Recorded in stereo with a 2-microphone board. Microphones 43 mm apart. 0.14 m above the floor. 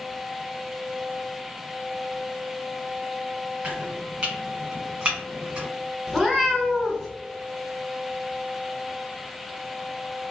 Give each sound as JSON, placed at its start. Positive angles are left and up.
{"t": 3.6, "sound": "chopping", "side_deg": -20, "distance_m": 1.8}
{"t": 6.1, "sound": "a cat meowing", "side_deg": 0, "distance_m": 0.7}